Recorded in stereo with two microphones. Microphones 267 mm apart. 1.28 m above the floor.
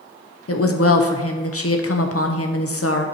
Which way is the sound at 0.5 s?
60° left (ahead or behind).